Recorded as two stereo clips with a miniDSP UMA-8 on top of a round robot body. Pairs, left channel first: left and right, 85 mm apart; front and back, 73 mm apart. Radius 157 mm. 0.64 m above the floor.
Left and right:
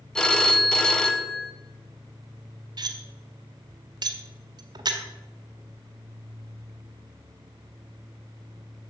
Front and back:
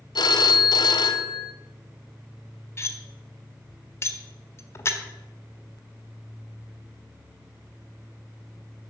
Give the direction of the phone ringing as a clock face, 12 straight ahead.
12 o'clock.